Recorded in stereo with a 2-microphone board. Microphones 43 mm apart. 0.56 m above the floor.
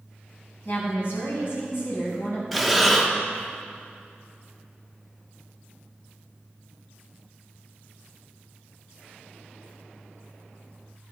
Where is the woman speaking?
60° left (ahead or behind), 4.5 m.